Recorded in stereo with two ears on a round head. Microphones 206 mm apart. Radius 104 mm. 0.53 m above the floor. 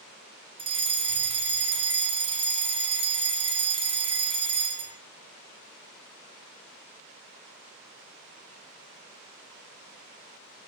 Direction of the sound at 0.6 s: 25° right (ahead or behind).